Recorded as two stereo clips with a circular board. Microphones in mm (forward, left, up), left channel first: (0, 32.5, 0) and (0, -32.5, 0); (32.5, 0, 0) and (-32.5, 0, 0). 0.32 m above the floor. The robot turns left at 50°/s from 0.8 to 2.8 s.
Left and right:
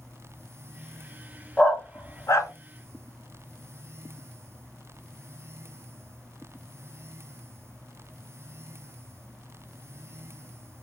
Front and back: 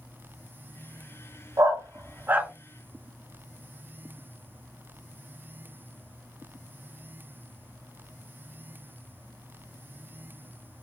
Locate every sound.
1.6 s a dog barking: 160° left, 0.7 m; by 2.5 s 115° left, 0.7 m